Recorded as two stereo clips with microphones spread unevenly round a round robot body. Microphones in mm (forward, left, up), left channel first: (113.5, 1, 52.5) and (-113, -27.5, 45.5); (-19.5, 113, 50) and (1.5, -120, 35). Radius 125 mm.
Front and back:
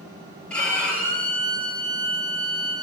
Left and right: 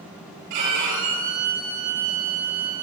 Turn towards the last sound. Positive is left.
turn(degrees=-80)